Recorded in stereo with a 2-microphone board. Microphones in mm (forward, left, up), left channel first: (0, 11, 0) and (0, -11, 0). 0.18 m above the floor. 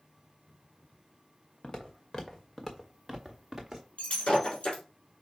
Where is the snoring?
I don't hear snoring.